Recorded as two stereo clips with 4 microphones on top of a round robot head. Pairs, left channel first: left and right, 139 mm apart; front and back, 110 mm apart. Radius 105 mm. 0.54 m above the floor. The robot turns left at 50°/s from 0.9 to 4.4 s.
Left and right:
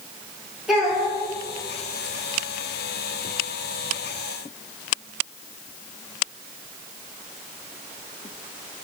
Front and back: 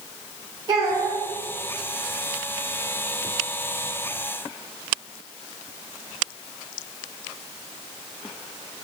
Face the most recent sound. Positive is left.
turn(degrees=10)